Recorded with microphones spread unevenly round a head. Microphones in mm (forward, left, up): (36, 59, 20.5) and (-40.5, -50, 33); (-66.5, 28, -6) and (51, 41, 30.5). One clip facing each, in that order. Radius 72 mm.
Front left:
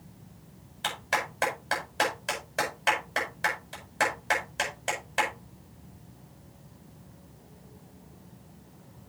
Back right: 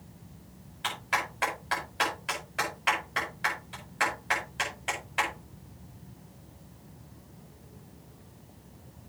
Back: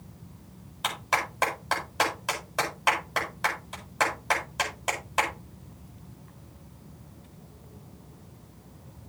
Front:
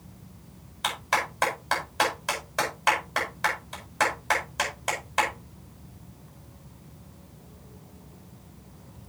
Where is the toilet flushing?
No toilet flushing in this recording.